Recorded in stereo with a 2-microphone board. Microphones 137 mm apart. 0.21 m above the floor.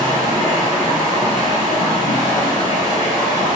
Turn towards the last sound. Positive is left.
turn(degrees=-35)  # may be behind; listen again after turning